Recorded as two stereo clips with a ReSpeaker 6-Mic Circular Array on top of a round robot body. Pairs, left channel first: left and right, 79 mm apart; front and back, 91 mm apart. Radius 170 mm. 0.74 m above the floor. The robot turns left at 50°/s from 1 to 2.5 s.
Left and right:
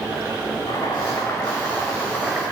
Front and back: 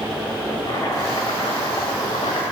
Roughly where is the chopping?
Ahead left.